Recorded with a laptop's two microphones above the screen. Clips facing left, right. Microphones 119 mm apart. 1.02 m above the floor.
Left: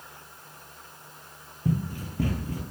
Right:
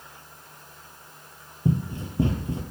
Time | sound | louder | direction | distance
1.6 | running footsteps | right 3 dB | 25° right (ahead or behind) | 1.1 m